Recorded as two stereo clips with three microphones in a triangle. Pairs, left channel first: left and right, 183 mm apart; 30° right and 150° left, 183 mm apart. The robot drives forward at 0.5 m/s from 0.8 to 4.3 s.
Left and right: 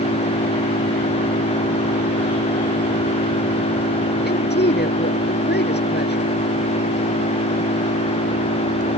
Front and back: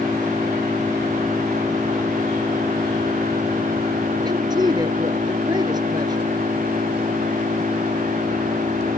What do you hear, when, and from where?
0.0 s an engine running: 75° left; by 9.0 s 90° left
4.2 s a woman speaking: 85° left